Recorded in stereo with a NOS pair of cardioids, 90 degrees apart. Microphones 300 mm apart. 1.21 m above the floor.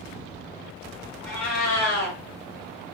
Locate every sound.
1.2 s a cat meowing: 65° left, 1.4 m